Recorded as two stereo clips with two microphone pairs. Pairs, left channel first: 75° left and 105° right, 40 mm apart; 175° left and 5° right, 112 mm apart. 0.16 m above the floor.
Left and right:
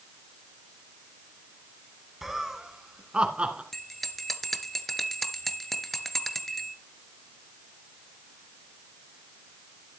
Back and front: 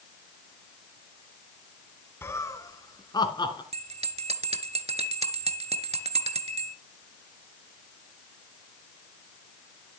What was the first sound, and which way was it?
Laughter, 175° right.